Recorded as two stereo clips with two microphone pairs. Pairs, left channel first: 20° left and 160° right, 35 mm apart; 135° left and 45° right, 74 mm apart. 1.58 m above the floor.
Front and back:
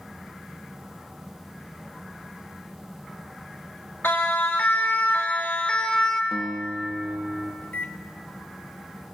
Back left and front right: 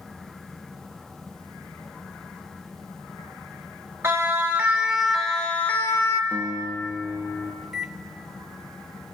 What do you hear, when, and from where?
4.0 s a siren: 15° left, 2.5 m; by 6.2 s 95° left, 1.9 m
6.3 s a guitar: 90° right, 0.7 m
7.6 s a microwave: 40° left, 1.0 m